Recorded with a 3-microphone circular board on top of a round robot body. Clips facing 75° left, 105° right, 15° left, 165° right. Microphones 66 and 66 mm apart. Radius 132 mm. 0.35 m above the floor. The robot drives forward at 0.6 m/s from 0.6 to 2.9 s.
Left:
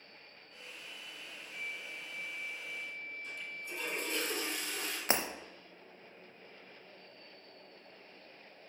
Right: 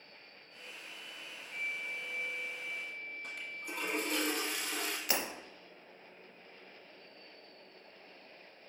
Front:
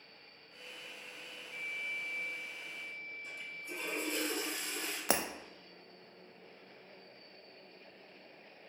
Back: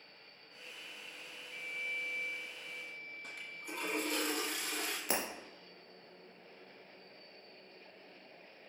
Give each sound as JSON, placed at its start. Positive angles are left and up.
{"t": 1.5, "sound": "a flute", "azimuth_deg": -60, "distance_m": 0.6}
{"t": 3.2, "sound": "a toilet flushing", "azimuth_deg": -135, "distance_m": 1.2}
{"t": 5.1, "sound": "breaking glass", "azimuth_deg": 15, "distance_m": 0.7}